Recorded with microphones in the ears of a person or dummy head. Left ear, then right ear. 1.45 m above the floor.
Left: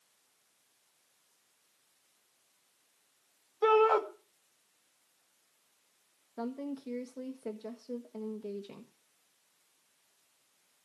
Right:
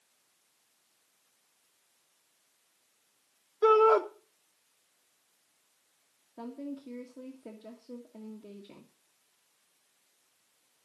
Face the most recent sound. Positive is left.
turn(degrees=80)